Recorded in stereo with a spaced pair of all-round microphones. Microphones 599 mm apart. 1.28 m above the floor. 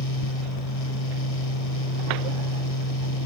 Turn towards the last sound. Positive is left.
turn(degrees=65)  # may be behind; listen again after turning